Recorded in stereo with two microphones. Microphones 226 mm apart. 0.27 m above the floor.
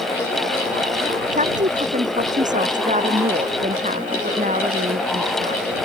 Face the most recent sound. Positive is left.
turn(degrees=-35)  # may be behind; listen again after turning